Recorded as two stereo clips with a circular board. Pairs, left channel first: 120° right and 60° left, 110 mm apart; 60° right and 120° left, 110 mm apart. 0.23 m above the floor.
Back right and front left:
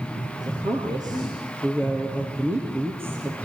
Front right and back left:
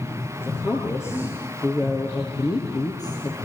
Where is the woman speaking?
10° left, 6 m; by 3.4 s 10° right, 5 m.